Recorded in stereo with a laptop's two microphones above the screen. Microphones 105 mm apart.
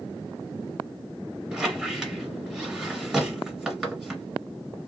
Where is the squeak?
5° right (ahead or behind), 1.7 m.